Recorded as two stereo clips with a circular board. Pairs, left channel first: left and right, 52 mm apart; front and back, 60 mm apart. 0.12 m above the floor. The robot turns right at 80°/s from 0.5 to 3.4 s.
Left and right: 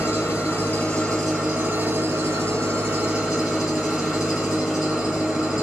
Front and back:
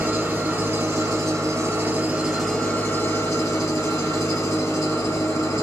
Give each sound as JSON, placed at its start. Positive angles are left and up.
{"t": 0.0, "sound": "an engine running", "azimuth_deg": 115, "distance_m": 2.0}